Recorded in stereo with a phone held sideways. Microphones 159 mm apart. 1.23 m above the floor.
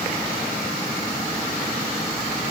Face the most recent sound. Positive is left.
No sound to turn to.